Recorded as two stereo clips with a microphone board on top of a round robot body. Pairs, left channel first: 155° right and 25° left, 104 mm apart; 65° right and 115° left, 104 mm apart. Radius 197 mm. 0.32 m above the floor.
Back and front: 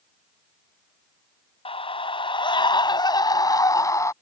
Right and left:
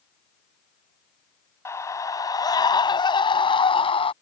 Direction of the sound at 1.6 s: 130° right.